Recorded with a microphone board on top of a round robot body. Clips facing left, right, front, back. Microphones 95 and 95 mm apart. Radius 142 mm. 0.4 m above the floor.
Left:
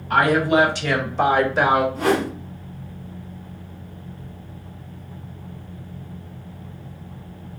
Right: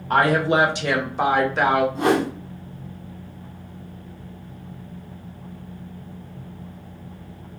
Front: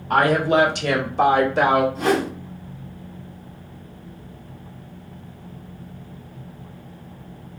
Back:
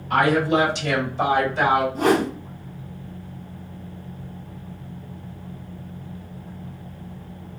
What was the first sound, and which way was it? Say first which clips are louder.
A woman speaking: left 1 dB, front 1 dB; 40° right.